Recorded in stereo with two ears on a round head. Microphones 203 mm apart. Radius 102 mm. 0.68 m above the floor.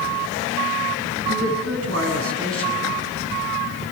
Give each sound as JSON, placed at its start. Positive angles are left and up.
{"t": 1.3, "sound": "a man speaking", "side_deg": -70, "distance_m": 7.0}